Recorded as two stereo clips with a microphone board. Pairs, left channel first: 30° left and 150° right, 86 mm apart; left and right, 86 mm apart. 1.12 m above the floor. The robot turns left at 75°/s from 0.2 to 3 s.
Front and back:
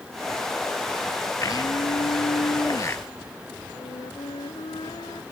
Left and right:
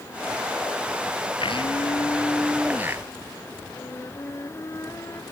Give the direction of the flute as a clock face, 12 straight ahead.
11 o'clock.